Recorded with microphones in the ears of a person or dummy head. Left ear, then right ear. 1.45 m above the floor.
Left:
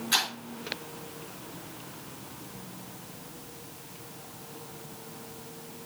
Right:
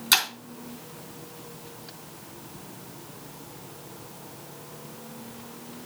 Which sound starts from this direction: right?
Breaking glass, at 0.1 s.